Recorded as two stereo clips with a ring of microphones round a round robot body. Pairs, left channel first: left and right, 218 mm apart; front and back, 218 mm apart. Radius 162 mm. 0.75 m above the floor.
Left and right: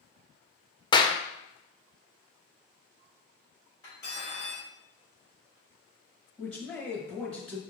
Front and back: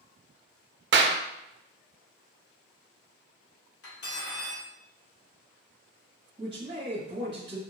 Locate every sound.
0.9 s a clap: 160° left, 0.5 m
3.8 s cutlery clinking: 10° left, 1.7 m
6.4 s a man speaking: 175° left, 1.1 m